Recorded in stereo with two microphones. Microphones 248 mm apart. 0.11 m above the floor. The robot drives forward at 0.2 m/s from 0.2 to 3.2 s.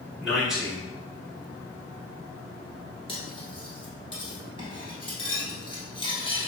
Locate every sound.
0.2 s a man speaking: 5° right (ahead or behind), 1.4 m
3.1 s cutlery clinking: 20° left (ahead or behind), 1.0 m